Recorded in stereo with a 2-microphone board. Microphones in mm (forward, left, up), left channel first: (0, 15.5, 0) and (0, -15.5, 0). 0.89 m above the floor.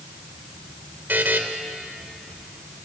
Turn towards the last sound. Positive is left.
turn(degrees=-70)  # may be behind; listen again after turning